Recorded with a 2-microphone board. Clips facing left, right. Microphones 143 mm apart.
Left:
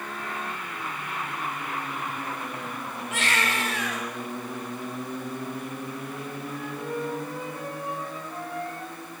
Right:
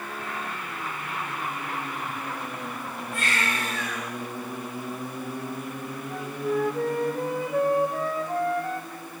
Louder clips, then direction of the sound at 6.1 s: Right 7 dB; 85° right.